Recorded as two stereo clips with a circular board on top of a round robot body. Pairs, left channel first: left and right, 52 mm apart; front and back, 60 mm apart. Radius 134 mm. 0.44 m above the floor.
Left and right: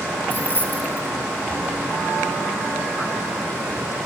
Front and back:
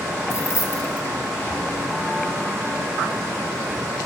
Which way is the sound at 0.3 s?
35° left.